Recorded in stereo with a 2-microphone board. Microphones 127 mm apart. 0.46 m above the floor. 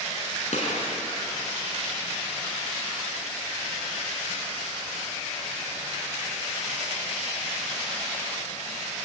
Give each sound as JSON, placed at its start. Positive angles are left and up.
{"t": 0.5, "sound": "a gunshot", "side_deg": 65, "distance_m": 5.0}